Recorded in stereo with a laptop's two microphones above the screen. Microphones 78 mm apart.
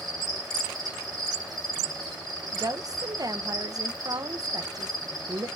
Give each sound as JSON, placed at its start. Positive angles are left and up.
{"t": 0.0, "sound": "an insect", "side_deg": -50, "distance_m": 3.0}
{"t": 2.5, "sound": "a woman speaking", "side_deg": -50, "distance_m": 0.7}